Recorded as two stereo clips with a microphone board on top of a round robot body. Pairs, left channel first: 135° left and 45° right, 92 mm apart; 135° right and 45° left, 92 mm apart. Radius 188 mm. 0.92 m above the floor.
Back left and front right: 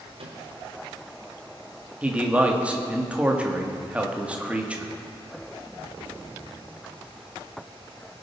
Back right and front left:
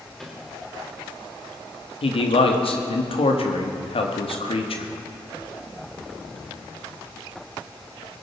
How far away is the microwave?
About 2.5 m.